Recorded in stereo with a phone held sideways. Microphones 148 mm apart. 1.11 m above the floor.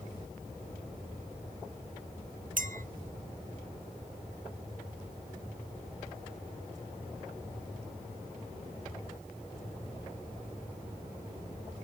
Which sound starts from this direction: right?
A clink, at 2.6 s.